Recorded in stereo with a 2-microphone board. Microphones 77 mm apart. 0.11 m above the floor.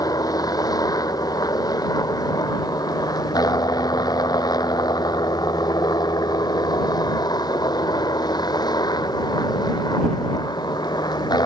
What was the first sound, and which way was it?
A helicopter, 55° left (ahead or behind).